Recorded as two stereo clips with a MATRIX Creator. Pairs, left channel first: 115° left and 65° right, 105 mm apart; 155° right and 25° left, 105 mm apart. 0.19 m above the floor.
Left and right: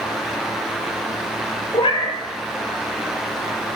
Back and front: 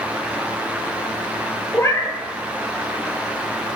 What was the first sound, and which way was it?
A cat meowing, 140° left.